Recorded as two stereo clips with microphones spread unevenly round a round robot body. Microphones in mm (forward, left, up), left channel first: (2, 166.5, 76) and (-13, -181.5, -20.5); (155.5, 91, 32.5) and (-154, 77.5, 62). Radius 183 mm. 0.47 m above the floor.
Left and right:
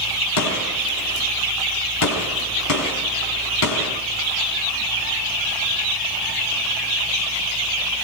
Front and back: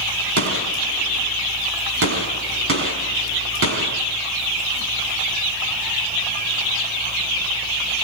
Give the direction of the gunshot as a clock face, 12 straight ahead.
8 o'clock.